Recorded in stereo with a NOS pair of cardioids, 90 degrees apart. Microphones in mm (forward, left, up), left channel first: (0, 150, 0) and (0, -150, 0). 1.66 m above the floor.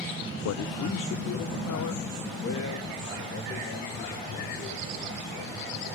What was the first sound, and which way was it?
A man speaking, 70° left.